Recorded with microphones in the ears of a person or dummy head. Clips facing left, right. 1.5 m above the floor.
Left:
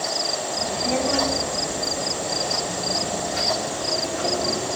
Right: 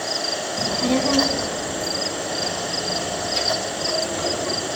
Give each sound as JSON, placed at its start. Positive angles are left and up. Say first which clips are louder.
{"t": 0.6, "sound": "a child speaking", "louder": "right 4 dB", "side_deg": -70, "distance_m": 1.2}